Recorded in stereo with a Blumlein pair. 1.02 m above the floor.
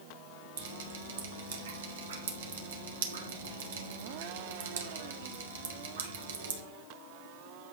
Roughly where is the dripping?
Ahead right.